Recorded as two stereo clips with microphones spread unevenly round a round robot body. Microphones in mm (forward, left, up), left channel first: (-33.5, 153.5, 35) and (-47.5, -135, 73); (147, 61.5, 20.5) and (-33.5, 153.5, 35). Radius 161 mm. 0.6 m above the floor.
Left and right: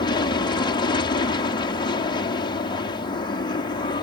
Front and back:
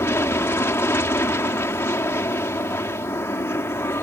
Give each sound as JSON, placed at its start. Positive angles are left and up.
{"t": 0.0, "sound": "an aircraft", "azimuth_deg": 40}